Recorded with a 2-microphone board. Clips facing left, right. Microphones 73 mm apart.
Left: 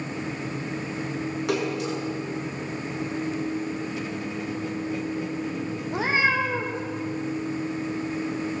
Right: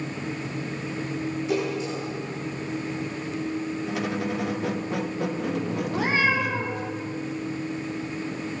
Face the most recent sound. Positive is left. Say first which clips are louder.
# left 1 dB
turn(degrees=20)  # may be behind; listen again after turning